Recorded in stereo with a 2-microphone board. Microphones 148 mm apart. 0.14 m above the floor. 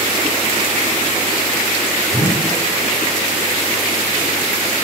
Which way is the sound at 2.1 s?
35° right (ahead or behind).